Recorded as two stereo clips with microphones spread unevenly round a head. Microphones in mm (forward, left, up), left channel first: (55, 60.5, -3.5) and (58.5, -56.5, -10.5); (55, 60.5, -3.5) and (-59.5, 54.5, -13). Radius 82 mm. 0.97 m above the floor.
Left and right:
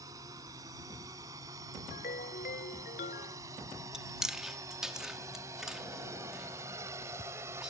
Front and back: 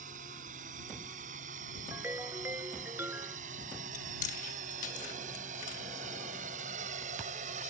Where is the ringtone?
115° left.